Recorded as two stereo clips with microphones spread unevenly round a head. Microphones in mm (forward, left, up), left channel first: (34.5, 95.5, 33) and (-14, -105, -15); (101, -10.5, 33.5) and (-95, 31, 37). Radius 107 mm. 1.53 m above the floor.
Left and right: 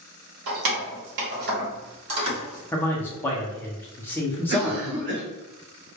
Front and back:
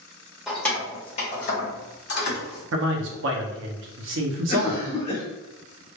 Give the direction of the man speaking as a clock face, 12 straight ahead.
7 o'clock.